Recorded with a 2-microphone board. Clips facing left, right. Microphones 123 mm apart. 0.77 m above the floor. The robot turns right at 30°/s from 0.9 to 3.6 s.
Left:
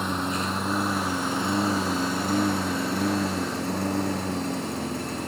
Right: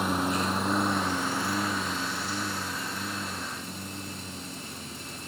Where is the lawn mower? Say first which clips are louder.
Even; 5° right (ahead or behind); by 5.3 s 75° left (ahead or behind).